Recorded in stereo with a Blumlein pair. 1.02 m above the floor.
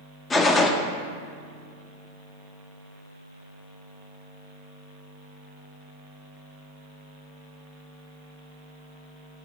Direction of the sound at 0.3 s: 15° left.